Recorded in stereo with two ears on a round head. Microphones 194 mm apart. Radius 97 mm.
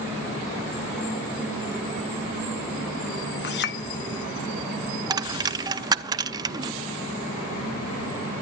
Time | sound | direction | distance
3.4 | a clink | 55° left (ahead or behind) | 1.1 m
5.1 | a dropped coin | 20° right (ahead or behind) | 0.6 m